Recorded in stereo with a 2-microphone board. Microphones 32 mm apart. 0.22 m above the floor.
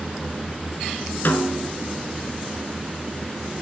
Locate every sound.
1.2 s a snare drum: 70° left (ahead or behind), 1.5 m